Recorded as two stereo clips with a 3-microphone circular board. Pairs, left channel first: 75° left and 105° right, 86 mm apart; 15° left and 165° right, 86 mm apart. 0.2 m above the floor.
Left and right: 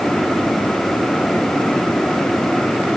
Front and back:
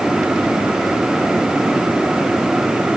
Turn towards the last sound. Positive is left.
No sound to turn to.